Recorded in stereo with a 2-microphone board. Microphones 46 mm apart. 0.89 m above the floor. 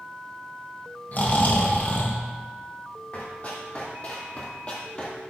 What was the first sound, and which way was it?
Snoring, 40° left (ahead or behind).